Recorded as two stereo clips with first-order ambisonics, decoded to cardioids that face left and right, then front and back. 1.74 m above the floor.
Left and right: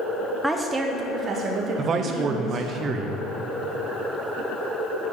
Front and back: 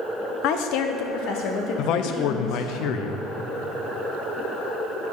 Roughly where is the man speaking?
Ahead right.